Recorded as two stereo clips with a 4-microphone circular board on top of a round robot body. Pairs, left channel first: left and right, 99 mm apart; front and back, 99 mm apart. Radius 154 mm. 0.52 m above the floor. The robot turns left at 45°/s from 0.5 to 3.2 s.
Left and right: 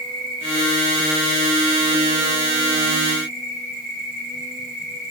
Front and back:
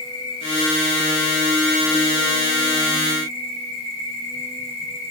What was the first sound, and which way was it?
An insect, 50° right.